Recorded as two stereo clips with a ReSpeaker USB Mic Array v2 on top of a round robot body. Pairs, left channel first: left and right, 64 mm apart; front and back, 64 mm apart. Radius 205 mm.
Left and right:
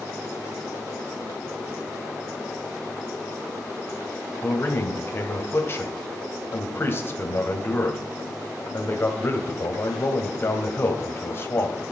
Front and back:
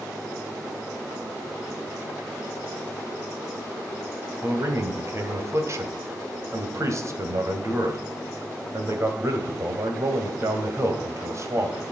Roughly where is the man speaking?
Behind left.